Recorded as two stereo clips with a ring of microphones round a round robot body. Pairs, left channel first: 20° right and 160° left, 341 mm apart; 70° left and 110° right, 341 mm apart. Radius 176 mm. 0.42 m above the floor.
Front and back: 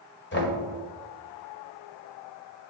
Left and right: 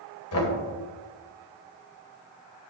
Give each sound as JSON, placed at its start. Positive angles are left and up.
{"t": 0.3, "sound": "knocking", "azimuth_deg": 30, "distance_m": 2.0}